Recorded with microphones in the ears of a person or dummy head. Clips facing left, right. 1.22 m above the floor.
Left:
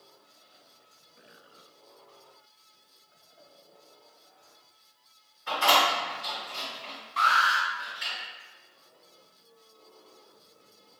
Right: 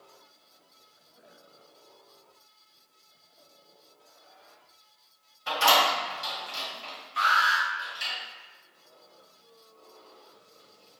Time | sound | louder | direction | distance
5.5 | a door slam | right 1 dB | 85° right | 1.4 m
7.2 | an alarm | left 1 dB | 10° right (ahead or behind) | 0.6 m